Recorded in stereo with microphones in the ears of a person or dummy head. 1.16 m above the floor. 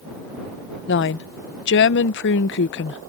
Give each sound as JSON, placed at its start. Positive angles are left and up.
{"t": 0.9, "sound": "a woman speaking", "side_deg": 55}